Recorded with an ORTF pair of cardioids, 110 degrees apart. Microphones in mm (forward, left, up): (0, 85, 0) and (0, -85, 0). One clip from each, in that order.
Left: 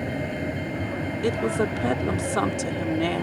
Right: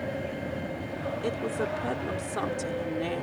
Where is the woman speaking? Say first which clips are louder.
Left 7 dB; 45° left.